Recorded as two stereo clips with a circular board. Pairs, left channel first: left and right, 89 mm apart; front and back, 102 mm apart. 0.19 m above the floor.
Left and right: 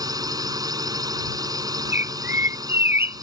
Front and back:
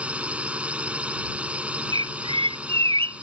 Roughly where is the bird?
Behind right.